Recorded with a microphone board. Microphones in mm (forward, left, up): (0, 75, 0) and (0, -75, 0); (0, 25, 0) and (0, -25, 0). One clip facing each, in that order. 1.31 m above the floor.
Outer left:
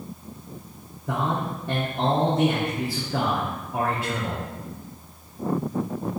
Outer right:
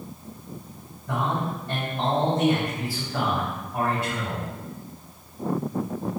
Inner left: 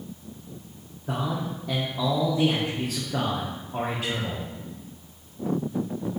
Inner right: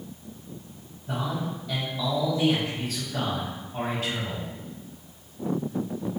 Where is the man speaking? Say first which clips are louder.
Even, inner left 1 dB; 80° left, 0.9 m.